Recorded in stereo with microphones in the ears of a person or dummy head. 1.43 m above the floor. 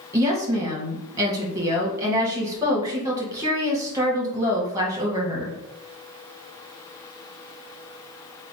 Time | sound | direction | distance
0.1 | a woman speaking | 15° right (ahead or behind) | 1.5 m